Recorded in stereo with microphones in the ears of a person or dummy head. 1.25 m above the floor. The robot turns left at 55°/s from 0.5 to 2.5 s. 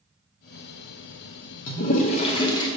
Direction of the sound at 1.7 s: 80° left.